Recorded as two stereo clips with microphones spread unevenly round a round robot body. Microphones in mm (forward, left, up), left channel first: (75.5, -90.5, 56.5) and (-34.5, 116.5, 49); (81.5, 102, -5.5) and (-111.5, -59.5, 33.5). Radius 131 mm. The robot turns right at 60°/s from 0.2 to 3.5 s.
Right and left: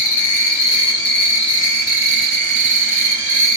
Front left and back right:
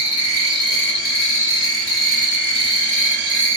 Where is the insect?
60° right, 1.3 m; by 3.6 s 140° left, 1.3 m.